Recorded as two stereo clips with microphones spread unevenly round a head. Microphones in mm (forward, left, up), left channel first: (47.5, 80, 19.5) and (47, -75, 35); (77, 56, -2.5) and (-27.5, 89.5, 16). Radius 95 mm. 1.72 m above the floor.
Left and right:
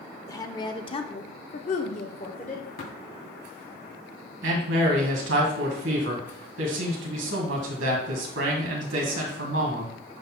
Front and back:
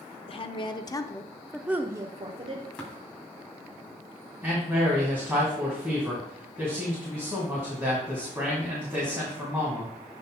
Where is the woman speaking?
20° left, 0.9 m; by 2.7 s 150° left, 0.8 m.